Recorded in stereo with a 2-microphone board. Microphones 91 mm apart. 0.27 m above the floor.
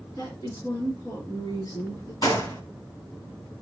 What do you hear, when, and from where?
0.2 s a woman speaking: 55° left (ahead or behind), 2.5 m
2.2 s a gunshot: 50° left (ahead or behind), 2 m